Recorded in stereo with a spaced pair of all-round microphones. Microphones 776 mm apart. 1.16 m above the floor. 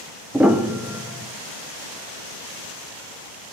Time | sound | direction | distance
0.3 | a piano | centre (ahead or behind) | 0.5 m